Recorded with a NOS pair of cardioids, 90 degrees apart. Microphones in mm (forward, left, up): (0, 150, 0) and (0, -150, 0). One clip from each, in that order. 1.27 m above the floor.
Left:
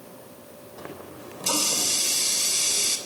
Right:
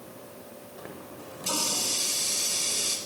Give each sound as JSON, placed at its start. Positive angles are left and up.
{"t": 0.8, "sound": "a running tap", "azimuth_deg": 30, "distance_m": 3.5}